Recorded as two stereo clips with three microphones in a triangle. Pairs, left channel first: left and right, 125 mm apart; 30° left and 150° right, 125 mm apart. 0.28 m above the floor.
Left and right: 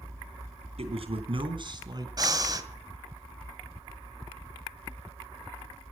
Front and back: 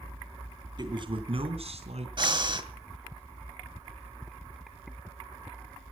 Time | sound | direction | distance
0.8 | a man speaking | 105° right | 3 m
2.2 | breathing | 130° right | 1.7 m